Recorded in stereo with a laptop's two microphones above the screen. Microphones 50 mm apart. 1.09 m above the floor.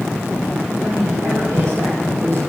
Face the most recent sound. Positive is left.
turn(degrees=-80)